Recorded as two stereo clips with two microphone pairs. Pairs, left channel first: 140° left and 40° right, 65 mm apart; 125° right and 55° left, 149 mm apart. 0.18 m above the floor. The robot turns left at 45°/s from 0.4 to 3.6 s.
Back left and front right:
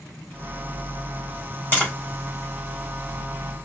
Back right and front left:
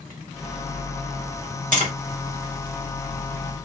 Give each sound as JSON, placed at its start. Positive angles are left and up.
{"t": 1.7, "sound": "tapping", "azimuth_deg": 80, "distance_m": 3.5}